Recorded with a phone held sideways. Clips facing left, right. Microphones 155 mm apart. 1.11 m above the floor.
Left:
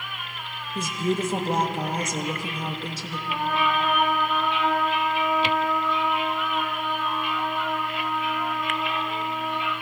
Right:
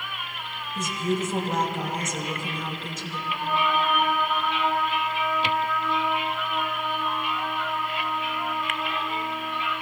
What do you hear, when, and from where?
0.8 s a woman speaking: 35° left (ahead or behind), 1.3 m
3.3 s a trumpet: 85° left, 2.5 m